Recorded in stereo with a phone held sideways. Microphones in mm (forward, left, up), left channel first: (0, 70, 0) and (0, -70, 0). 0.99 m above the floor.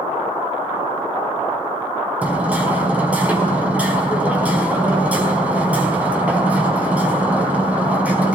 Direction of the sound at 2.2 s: 10° right (ahead or behind).